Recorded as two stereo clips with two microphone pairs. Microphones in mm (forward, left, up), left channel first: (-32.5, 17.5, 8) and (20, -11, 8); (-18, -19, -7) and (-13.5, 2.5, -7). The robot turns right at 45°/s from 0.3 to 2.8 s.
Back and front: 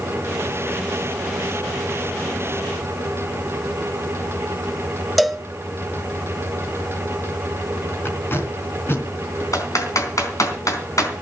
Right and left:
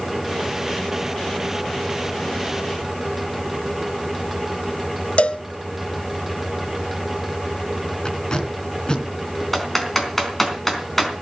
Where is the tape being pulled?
155° right, 3 m.